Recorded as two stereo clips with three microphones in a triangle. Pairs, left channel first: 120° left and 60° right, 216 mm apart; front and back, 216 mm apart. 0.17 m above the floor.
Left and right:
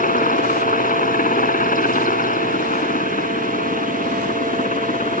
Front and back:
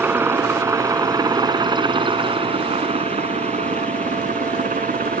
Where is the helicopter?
105° left; by 5.2 s 155° left.